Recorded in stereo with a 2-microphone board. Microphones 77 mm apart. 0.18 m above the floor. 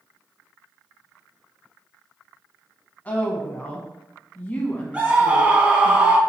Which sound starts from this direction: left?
A woman speaking, at 3.0 s.